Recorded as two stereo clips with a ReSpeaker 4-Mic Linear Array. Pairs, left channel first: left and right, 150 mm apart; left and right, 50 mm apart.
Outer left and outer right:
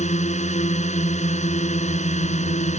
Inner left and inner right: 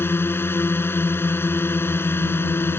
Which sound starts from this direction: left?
A drone, at 0.0 s.